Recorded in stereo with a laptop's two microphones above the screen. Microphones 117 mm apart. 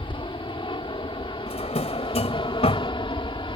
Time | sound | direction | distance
0.0 | an aircraft | 50° left (ahead or behind) | ?
1.5 | a drawer | 75° left (ahead or behind) | ?